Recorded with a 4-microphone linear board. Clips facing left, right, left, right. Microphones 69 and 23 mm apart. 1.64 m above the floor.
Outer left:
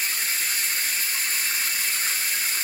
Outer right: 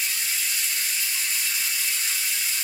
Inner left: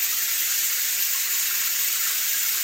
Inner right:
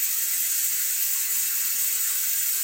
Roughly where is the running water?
Left.